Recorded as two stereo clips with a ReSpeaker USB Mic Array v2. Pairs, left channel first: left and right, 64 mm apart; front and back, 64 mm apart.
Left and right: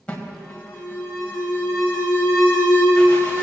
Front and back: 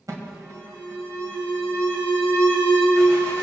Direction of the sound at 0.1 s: 160° left.